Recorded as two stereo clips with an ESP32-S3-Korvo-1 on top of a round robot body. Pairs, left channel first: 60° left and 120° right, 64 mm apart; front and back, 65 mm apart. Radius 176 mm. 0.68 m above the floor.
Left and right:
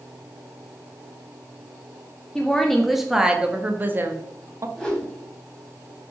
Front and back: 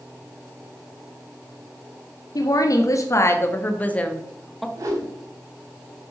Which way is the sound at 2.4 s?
20° right.